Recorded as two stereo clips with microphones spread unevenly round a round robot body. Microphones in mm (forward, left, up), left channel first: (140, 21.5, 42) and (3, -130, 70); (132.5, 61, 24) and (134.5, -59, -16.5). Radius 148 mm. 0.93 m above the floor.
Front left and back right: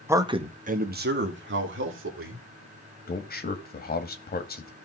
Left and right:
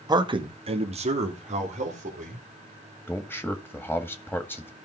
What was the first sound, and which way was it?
A man speaking, 50° right.